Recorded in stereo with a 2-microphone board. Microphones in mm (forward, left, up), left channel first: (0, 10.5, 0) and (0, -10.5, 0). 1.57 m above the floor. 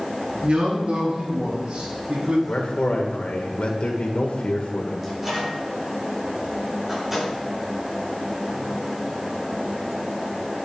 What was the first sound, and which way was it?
A man speaking, 80° right.